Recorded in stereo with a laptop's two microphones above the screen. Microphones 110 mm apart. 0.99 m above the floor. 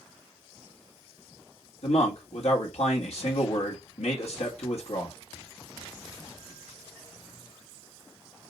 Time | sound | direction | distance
1.8 | a man speaking | 75° left (ahead or behind) | 1.4 m